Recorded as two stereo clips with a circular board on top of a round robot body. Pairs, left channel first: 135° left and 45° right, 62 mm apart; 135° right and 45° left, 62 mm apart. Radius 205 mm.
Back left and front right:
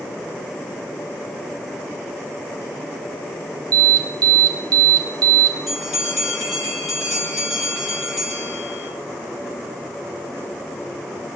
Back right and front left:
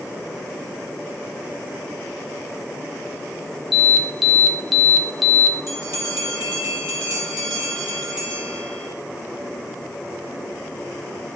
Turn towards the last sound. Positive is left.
turn(degrees=40)